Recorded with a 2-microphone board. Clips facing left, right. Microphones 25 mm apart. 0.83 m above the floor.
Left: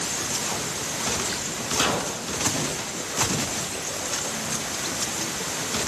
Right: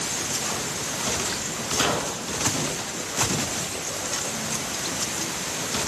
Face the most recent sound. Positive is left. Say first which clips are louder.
# even
turn(degrees=10)  # may be behind; listen again after turning